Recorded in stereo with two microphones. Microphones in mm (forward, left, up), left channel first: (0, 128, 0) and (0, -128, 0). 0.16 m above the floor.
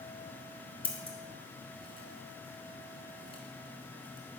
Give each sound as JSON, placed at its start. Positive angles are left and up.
{"t": 0.8, "sound": "scissors", "side_deg": 20, "distance_m": 1.0}